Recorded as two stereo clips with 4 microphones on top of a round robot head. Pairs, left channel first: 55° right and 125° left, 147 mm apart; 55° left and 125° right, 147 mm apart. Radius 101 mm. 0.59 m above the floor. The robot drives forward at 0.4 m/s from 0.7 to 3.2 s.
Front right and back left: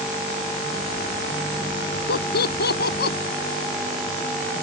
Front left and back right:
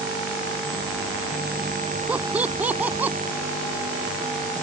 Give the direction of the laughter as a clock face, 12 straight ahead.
1 o'clock.